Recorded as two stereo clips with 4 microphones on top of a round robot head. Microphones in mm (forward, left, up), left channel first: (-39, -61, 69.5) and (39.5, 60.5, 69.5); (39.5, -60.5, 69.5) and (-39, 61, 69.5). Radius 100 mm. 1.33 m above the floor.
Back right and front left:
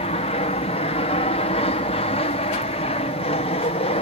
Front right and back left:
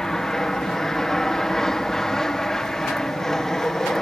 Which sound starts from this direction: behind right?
An aircraft, at 0.0 s.